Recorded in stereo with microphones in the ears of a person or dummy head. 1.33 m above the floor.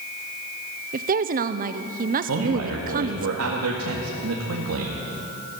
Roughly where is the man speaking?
Right.